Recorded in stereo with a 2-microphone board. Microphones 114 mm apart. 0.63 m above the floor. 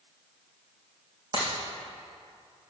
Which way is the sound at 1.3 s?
50° right (ahead or behind).